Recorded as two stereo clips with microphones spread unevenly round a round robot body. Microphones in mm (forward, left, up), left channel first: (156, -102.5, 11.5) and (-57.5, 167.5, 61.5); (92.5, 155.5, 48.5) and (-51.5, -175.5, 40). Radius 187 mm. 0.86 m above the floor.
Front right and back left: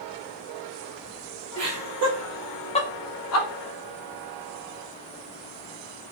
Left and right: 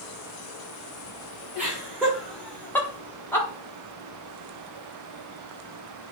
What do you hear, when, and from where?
1.6 s laughter: 160° left, 1.1 m; by 3.5 s 20° right, 1.1 m